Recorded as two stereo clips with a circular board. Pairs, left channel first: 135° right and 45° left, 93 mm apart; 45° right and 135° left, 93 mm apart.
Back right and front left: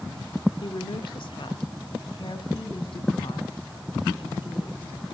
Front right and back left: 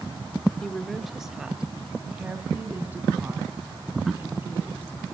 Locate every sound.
0.6 s a woman speaking: 125° right, 1.5 m; by 5.0 s 160° right, 6 m